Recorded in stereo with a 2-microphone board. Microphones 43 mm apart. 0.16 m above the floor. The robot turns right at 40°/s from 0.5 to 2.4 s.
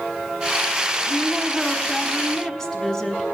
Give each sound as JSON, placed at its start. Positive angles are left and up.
{"t": 1.1, "sound": "a woman speaking", "side_deg": 20, "distance_m": 1.1}